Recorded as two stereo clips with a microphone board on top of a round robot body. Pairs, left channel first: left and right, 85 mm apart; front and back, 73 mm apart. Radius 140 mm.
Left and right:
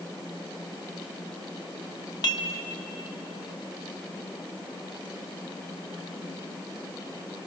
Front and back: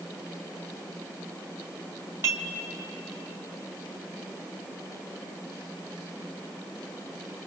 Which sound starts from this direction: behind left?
Dishes clattering, at 2.2 s.